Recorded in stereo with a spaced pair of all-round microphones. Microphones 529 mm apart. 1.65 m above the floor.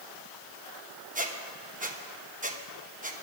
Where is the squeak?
15° right (ahead or behind), 1.0 m.